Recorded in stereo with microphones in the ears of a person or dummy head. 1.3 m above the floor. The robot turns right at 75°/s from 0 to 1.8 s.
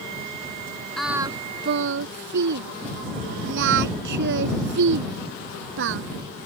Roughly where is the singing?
Centre.